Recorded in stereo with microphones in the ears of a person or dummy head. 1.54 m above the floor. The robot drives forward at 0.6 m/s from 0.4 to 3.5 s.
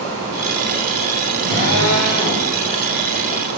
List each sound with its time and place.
1.4 s a drill: 65° right (ahead or behind), 4.5 m; by 2.5 s 60° right (ahead or behind), 4.5 m